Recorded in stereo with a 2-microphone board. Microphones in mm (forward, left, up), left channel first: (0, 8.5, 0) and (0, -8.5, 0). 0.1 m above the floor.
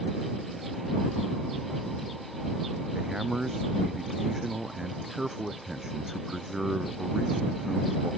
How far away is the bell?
No bell in this recording.